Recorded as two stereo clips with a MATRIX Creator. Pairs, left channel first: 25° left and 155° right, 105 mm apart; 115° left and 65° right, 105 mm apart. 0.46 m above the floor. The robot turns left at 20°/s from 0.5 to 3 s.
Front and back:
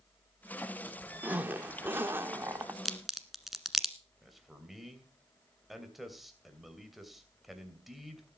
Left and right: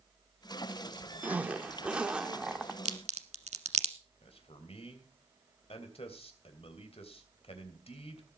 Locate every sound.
1.2 s a zipper: 115° right, 1.3 m; by 2.8 s 145° right, 1.3 m
2.9 s a crack: 65° right, 1.3 m; by 4.0 s 70° right, 1.3 m
4.2 s a man speaking: 115° left, 3 m